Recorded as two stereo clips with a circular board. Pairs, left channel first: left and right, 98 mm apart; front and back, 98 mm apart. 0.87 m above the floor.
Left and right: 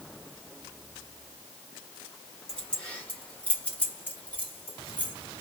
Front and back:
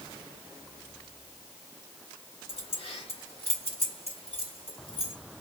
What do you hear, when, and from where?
2.5 s keys jangling: 10° left, 1.6 m; by 5.2 s 15° left, 3 m